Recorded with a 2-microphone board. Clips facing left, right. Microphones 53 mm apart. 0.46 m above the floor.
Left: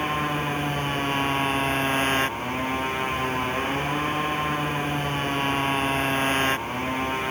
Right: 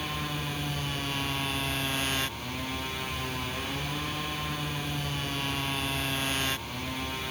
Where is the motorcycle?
40° left (ahead or behind).